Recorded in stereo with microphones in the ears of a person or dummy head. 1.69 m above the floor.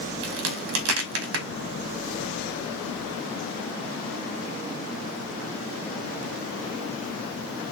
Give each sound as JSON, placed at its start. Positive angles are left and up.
{"t": 0.2, "sound": "a crack", "side_deg": -70, "distance_m": 1.0}